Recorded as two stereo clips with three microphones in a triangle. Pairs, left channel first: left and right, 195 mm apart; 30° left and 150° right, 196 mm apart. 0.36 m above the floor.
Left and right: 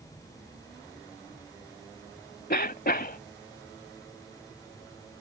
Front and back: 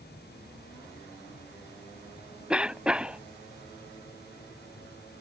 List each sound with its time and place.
2.5 s a cough: 125° left